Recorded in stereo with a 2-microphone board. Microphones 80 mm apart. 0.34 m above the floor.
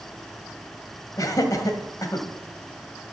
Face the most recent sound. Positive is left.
turn(degrees=50)  # may be behind; listen again after turning